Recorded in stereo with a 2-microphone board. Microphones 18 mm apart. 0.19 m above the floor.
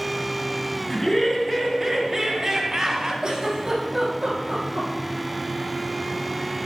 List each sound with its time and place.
0.9 s laughter: 25° left (ahead or behind), 1.7 m; by 3.1 s 30° right (ahead or behind), 1.9 m
3.2 s a giggle: 30° right (ahead or behind), 5 m